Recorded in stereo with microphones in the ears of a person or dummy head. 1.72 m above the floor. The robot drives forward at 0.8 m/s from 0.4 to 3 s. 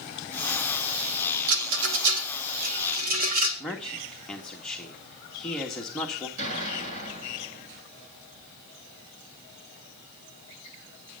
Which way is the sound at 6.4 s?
45° right (ahead or behind).